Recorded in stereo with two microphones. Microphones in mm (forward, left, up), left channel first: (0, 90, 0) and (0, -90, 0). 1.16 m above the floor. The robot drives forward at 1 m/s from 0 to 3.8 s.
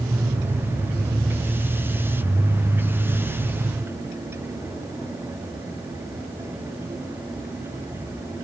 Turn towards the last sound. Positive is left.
No sound to turn to.